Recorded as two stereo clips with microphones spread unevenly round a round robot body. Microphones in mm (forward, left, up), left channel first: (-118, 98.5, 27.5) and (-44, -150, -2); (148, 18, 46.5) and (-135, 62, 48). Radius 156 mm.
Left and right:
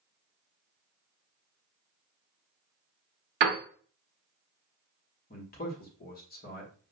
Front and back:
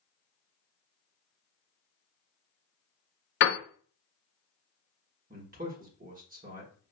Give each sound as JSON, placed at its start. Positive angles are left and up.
{"t": 3.4, "sound": "a piano", "azimuth_deg": -45, "distance_m": 0.8}
{"t": 5.3, "sound": "a man speaking", "azimuth_deg": 140, "distance_m": 1.2}